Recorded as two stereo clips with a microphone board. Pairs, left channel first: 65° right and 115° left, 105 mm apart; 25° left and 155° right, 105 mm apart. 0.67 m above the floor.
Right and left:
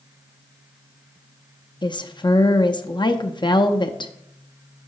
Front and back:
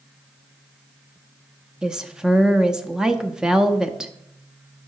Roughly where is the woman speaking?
Right.